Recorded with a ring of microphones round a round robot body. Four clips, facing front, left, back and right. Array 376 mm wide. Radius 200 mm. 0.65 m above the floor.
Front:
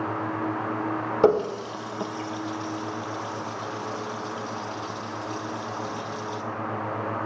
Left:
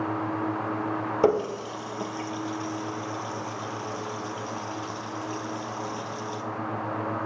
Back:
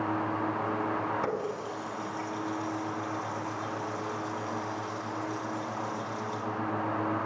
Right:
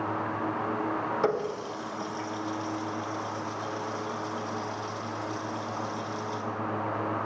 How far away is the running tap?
About 1.3 m.